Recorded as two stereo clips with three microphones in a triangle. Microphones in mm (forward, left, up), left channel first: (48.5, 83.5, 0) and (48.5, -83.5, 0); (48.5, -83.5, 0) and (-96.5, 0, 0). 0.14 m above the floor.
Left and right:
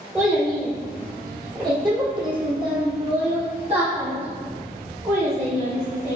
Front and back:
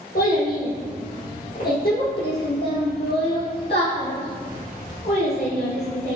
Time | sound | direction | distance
0.1 | a child speaking | 10° right | 2.5 m